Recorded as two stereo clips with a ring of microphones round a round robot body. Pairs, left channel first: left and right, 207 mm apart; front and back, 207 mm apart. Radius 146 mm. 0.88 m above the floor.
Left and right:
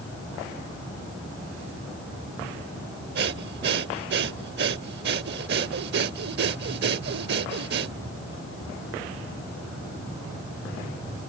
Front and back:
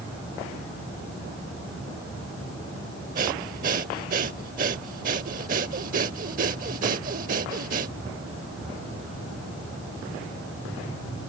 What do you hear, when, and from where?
3.1 s breathing: 130° right